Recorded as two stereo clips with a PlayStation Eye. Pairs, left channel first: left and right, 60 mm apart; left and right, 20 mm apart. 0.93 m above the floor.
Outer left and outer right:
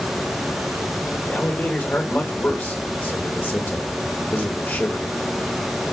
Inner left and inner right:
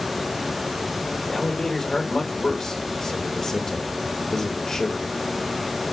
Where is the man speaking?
30° left (ahead or behind), 4 m.